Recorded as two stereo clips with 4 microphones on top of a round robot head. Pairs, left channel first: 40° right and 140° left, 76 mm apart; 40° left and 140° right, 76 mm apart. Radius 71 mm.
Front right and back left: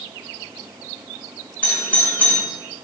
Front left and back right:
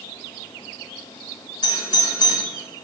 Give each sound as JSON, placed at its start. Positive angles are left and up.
{"t": 1.6, "sound": "a doorbell", "azimuth_deg": 30, "distance_m": 4.0}